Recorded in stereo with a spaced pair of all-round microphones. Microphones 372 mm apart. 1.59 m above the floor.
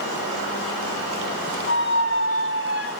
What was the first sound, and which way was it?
A squeak, 30° right (ahead or behind).